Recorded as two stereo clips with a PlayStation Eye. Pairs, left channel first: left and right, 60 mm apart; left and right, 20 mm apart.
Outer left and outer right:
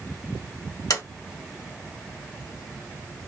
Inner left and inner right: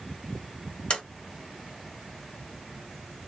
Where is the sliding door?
65° left (ahead or behind), 1.5 m.